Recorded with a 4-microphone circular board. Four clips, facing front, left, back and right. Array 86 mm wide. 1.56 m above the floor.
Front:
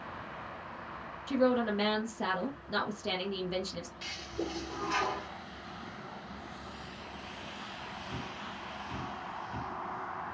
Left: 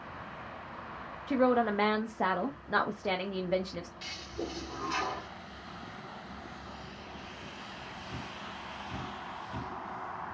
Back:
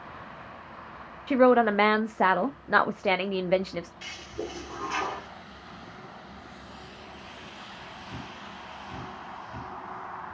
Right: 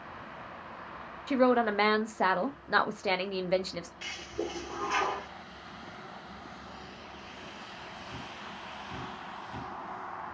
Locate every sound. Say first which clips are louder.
1.3 s a woman speaking: right 2 dB, back 8 dB; 170° right, 0.8 m
4.0 s a toilet flushing: right 5 dB, back 1 dB; 115° right, 1.3 m